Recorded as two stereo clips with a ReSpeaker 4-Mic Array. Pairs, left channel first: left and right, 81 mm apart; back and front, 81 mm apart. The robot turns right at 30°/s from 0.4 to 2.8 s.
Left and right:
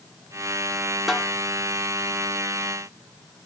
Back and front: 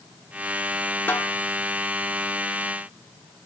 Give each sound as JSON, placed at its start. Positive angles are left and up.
{"t": 1.1, "sound": "a snare drum", "azimuth_deg": -175, "distance_m": 0.9}